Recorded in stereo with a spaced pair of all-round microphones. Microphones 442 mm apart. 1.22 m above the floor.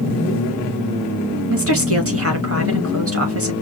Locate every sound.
1.5 s a woman speaking: 35° right (ahead or behind), 1.9 m